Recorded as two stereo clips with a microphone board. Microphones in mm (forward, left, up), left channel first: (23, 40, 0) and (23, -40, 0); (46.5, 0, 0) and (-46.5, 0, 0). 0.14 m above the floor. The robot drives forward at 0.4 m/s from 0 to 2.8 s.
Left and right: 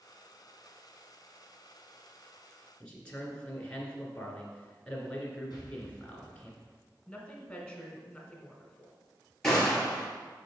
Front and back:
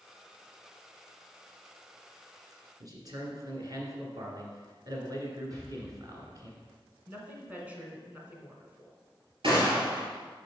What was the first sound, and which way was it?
A man speaking, 160° left.